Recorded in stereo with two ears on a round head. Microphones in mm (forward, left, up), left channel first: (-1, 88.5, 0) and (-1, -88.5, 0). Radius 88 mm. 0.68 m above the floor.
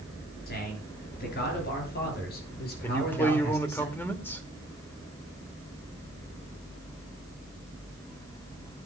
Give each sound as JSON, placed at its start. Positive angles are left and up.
{"t": 0.5, "sound": "a man speaking", "side_deg": 50, "distance_m": 9.0}
{"t": 2.8, "sound": "a man speaking", "side_deg": 10, "distance_m": 1.9}